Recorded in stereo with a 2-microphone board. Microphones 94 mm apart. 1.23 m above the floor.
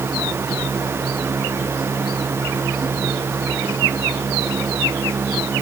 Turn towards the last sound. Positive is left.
No sound to turn to.